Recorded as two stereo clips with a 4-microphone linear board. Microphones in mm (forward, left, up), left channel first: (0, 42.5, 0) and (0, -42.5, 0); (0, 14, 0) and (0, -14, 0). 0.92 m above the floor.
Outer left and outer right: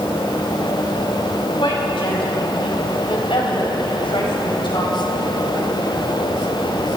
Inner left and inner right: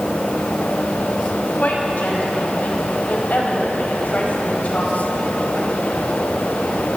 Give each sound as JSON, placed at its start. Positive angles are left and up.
{"t": 1.6, "sound": "a woman speaking", "side_deg": 75, "distance_m": 6.0}